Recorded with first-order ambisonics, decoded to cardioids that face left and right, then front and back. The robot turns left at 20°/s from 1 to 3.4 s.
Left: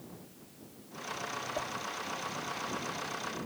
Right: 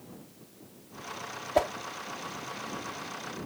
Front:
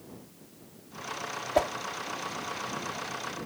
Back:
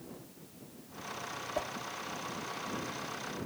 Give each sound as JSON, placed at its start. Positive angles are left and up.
{"t": 1.6, "sound": "a whoosh", "azimuth_deg": -50}